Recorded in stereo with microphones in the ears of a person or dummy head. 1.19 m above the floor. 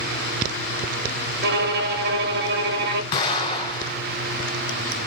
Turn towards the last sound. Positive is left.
turn(degrees=30)  # may be behind; listen again after turning